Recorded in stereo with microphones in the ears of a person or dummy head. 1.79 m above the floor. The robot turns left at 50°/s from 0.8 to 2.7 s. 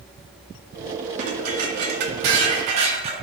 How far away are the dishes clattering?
About 1.8 m.